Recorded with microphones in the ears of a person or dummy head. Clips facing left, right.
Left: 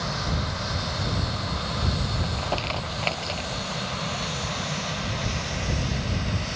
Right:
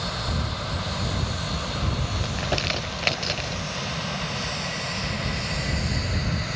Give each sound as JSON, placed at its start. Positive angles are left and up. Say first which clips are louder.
{"t": 2.2, "sound": "crumpling", "louder": "right 1 dB", "side_deg": -20}